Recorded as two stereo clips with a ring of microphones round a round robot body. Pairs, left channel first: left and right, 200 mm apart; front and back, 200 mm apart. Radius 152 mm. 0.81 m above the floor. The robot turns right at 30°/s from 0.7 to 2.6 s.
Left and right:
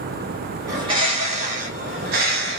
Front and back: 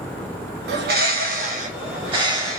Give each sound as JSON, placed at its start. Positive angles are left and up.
{"t": 0.7, "sound": "a bird", "azimuth_deg": -160, "distance_m": 0.9}